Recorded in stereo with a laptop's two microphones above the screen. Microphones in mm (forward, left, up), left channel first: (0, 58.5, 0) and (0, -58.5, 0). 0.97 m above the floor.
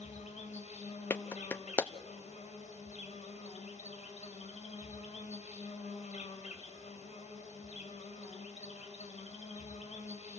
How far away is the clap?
About 0.8 m.